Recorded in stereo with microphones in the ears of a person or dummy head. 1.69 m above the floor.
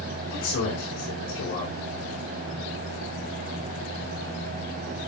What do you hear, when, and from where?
0.3 s a man speaking: 70° left (ahead or behind), 4.5 m